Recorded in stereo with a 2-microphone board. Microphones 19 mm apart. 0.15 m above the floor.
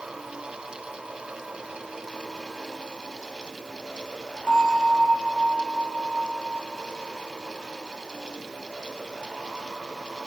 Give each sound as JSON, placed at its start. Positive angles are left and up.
{"t": 4.5, "sound": "a bell", "side_deg": 65, "distance_m": 4.0}